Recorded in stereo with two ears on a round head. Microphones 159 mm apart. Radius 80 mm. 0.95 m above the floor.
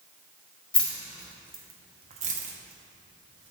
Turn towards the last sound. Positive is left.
turn(degrees=-80)